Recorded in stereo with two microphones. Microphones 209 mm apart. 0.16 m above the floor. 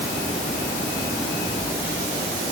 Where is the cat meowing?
I don't hear a cat meowing.